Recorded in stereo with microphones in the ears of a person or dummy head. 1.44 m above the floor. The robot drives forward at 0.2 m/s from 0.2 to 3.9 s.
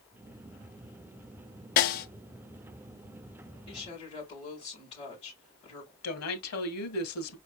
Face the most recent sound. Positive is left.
turn(degrees=85)